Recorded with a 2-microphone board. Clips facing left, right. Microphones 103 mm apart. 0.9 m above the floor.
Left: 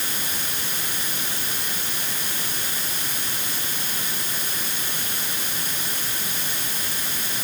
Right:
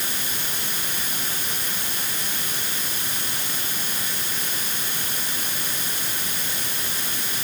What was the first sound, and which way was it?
Only background noise.